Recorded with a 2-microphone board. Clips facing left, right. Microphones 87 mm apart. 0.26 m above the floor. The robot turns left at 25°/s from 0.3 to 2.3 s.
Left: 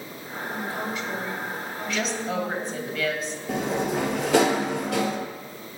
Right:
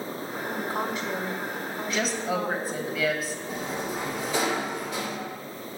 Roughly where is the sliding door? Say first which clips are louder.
Left 9 dB; left.